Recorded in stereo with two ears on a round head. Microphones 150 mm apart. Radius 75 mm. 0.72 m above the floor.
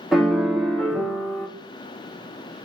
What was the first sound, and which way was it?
A piano, centre (ahead or behind).